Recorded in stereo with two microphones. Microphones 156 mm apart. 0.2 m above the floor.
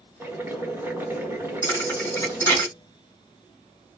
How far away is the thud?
About 2.5 m.